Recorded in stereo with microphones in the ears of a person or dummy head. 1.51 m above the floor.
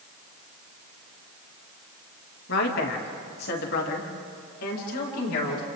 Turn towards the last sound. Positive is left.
turn(degrees=65)  # may be behind; listen again after turning